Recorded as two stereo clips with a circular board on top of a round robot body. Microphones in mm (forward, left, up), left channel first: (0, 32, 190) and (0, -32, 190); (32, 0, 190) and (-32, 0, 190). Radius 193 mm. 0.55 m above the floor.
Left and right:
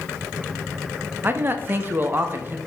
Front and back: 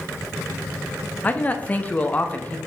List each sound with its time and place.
1.2 s a man speaking: 55° right, 1.1 m